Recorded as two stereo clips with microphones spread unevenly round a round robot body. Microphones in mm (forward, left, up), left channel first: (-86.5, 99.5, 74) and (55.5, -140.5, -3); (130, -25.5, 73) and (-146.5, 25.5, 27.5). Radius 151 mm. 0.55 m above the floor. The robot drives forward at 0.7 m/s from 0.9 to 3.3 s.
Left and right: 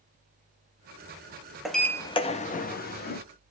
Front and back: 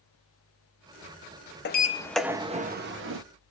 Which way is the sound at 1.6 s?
10° right.